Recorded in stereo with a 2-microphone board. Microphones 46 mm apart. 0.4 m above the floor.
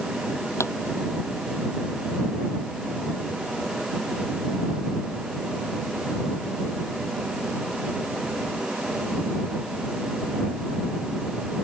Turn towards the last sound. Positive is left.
turn(degrees=75)  # may be behind; listen again after turning